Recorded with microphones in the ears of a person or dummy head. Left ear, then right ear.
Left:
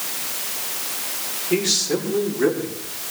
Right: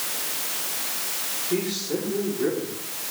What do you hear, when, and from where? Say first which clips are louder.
1.5 s a man speaking: left 8 dB; 65° left (ahead or behind), 5 m; by 2.8 s 70° left (ahead or behind), 4 m